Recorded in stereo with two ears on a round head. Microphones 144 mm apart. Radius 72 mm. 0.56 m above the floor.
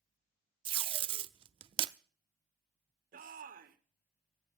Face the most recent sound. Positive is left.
turn(degrees=-55)  # may be behind; listen again after turning